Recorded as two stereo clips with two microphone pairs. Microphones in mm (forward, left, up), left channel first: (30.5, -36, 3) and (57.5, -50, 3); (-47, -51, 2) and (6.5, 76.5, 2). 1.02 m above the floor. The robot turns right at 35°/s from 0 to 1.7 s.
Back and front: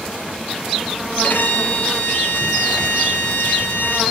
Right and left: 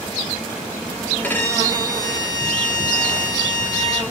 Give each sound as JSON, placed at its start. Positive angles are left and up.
{"t": 1.2, "sound": "a violin", "azimuth_deg": 170, "distance_m": 4.0}